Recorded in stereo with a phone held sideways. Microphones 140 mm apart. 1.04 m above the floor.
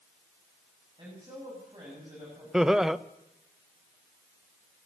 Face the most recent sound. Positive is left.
turn(degrees=-5)  # may be behind; listen again after turning